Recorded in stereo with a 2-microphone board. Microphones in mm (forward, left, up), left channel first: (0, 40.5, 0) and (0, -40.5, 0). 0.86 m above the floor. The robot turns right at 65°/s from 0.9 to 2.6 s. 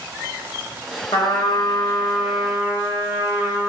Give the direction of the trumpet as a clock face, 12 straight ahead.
8 o'clock.